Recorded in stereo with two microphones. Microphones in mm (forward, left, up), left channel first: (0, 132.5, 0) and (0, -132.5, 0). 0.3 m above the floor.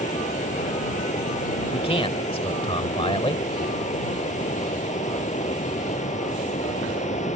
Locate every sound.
0.0 s running water: 30° left (ahead or behind)
1.7 s a man speaking: 20° left (ahead or behind)